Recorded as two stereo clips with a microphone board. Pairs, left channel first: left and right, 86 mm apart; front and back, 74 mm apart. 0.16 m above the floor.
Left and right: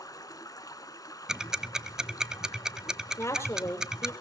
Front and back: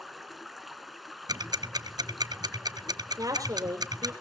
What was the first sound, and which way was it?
Running water, 90° left.